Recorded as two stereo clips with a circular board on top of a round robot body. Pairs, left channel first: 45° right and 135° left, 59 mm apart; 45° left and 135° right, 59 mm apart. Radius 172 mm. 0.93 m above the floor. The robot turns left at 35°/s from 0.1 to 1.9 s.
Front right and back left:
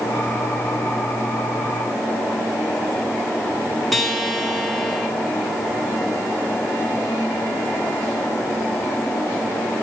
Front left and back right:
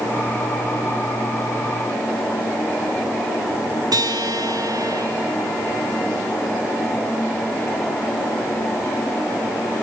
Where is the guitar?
135° right, 2 m.